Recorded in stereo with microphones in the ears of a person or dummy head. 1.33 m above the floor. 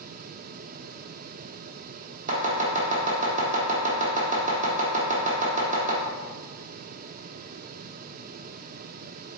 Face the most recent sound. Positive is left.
turn(degrees=-45)  # may be behind; listen again after turning